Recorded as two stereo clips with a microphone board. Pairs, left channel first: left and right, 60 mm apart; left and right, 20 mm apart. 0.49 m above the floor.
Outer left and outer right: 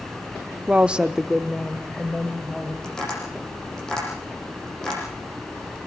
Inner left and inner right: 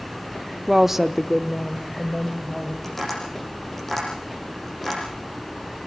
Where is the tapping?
10° left (ahead or behind), 8 m.